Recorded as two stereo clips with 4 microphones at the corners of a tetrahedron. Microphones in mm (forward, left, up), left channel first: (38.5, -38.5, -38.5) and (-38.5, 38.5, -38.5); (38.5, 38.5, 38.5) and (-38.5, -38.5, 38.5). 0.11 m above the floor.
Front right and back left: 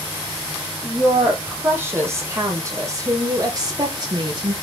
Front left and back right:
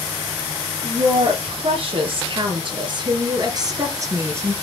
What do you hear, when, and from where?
0.8 s a woman speaking: 155° right, 3.5 m; by 4.5 s 160° left, 2 m